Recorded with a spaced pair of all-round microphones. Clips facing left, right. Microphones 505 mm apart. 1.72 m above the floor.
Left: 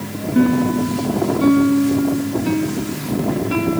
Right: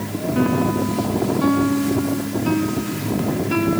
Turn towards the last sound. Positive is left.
turn(degrees=40)  # may be behind; listen again after turning